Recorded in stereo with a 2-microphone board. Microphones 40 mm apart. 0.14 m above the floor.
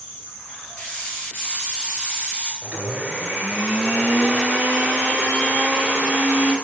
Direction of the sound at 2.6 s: 25° right (ahead or behind).